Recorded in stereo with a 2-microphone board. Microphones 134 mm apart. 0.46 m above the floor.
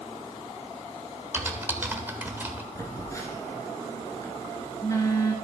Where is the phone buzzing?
25° left (ahead or behind), 2.5 m.